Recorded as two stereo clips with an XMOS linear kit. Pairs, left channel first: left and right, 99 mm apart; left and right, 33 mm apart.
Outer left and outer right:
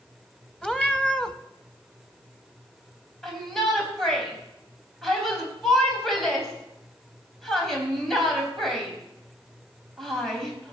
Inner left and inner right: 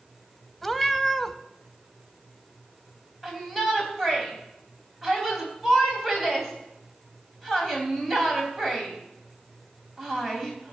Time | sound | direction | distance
0.6 | a cat meowing | 10° left (ahead or behind) | 0.8 m
3.2 | a shout | 5° left (ahead or behind) | 4 m